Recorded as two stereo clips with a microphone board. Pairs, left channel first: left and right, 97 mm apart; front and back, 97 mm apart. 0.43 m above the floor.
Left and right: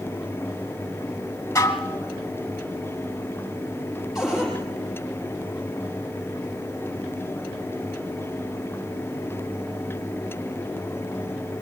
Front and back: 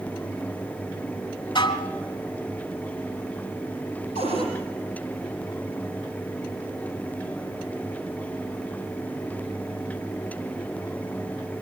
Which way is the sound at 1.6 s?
30° left.